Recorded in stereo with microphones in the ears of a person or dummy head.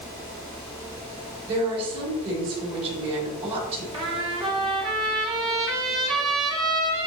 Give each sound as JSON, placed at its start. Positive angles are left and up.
{"t": 1.5, "sound": "a woman speaking", "side_deg": -30, "distance_m": 4.0}
{"t": 3.9, "sound": "a trumpet", "side_deg": -25, "distance_m": 2.5}